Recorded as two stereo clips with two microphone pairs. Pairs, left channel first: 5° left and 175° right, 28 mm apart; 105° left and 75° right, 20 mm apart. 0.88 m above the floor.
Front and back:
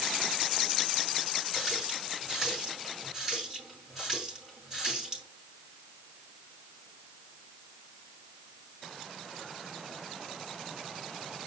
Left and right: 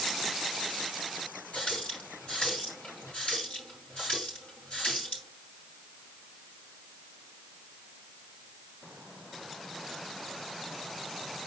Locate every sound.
1.5 s a running tap: 110° left, 5.5 m